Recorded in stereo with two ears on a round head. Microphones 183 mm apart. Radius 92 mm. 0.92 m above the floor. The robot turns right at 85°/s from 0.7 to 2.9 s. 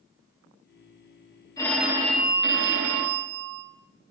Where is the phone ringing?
160° left, 1.2 m; by 3.6 s 85° right, 1.2 m.